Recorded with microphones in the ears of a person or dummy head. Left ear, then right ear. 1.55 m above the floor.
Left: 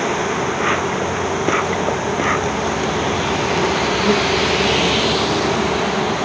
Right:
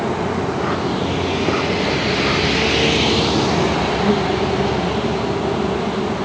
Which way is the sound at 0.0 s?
75° left (ahead or behind).